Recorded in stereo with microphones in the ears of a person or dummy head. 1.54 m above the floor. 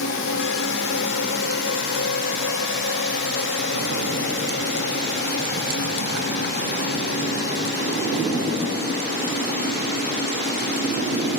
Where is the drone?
70° left (ahead or behind); by 11.4 s 55° left (ahead or behind).